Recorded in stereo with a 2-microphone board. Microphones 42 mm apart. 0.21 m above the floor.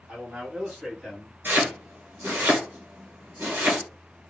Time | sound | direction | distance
0.1 | a man speaking | 50° right (ahead or behind) | 2.0 m
1.4 | chopping | 70° right (ahead or behind) | 1.4 m